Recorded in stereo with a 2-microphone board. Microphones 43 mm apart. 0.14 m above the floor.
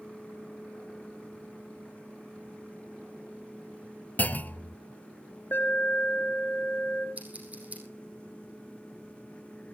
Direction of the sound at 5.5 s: 45° left (ahead or behind).